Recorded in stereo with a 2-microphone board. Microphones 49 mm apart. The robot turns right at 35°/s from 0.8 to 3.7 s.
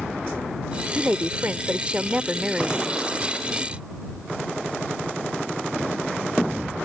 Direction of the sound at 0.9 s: 80° right.